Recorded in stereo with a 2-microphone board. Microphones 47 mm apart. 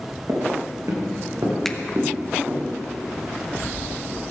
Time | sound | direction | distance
0.3 | footsteps | 75° right (ahead or behind) | 5 m
1.6 | a finger snap | 10° left (ahead or behind) | 0.8 m